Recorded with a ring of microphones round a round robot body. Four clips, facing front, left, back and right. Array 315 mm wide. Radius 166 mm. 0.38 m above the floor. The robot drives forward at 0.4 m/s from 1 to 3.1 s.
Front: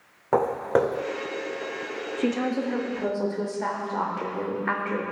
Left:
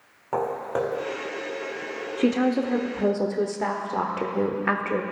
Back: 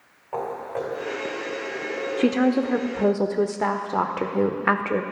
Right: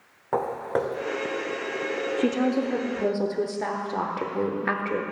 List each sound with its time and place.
0.3 s footsteps: 5° right, 1.4 m
2.2 s a woman speaking: 160° left, 0.9 m; by 5.0 s 170° left, 1.1 m